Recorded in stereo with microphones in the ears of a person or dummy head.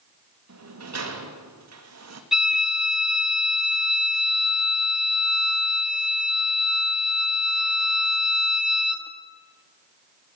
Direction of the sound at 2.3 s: 5° right (ahead or behind).